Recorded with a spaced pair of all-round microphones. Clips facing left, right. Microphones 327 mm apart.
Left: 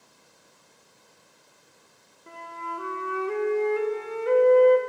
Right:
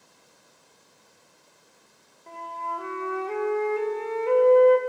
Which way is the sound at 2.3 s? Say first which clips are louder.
Right 1 dB; 15° left (ahead or behind).